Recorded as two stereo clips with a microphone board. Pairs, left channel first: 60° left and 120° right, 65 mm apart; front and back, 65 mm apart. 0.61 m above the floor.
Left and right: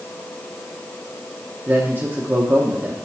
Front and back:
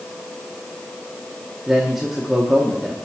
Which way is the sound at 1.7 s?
100° right.